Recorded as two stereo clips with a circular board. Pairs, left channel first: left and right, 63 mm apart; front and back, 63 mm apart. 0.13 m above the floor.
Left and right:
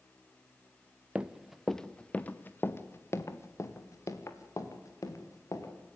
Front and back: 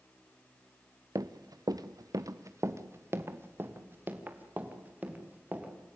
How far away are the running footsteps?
About 1.1 m.